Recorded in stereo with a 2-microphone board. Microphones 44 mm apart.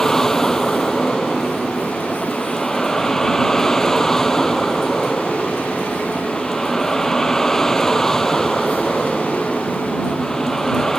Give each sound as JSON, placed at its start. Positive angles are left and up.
{"t": 0.0, "sound": "a vehicle", "side_deg": 10}